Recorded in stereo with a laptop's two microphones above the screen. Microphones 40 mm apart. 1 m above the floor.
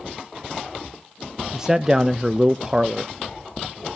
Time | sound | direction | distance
1.5 | a man speaking | 15° right (ahead or behind) | 0.5 m